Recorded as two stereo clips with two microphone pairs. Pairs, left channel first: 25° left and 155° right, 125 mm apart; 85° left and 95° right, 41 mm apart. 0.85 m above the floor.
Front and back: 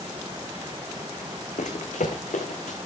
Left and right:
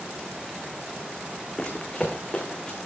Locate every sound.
1.6 s running footsteps: 20° left, 3 m; by 2.8 s 15° left, 3.5 m